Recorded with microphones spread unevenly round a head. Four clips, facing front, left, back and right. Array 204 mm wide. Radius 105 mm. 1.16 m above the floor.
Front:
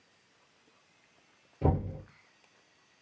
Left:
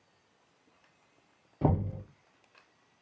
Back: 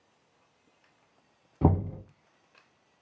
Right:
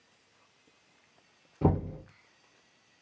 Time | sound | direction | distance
1.6 | knocking | 170° right | 1.3 m